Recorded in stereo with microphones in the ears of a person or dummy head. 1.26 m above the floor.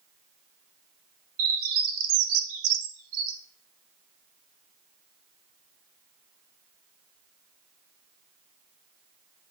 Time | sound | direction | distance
1.4 | a bird | 80° right | 1.0 m